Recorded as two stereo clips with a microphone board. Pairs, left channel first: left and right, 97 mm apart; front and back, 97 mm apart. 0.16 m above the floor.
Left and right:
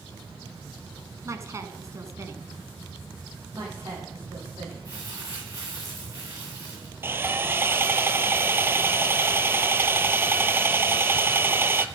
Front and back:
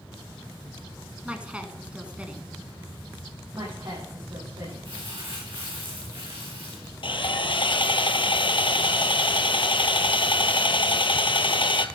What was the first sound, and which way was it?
A woman speaking, 110° right.